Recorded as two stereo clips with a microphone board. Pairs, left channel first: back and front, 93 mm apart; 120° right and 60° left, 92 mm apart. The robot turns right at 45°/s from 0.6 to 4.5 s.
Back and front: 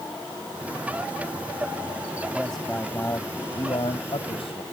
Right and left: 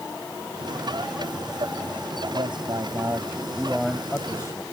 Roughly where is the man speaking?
Left.